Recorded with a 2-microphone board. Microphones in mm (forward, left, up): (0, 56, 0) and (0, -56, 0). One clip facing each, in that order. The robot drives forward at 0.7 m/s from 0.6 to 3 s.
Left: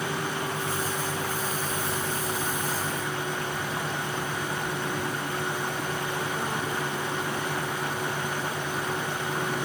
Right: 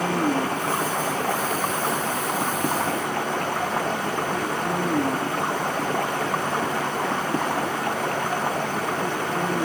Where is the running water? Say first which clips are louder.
Right 8 dB; 65° right (ahead or behind).